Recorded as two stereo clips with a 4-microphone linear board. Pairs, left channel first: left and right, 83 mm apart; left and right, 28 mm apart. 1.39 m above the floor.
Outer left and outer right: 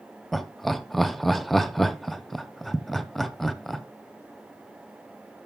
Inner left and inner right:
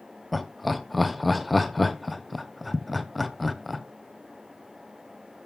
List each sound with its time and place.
0.3 s laughter: centre (ahead or behind), 0.7 m